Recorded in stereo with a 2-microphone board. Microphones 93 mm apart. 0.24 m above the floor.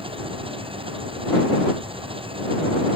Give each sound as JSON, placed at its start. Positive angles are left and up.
{"t": 0.0, "sound": "an engine running", "side_deg": -75}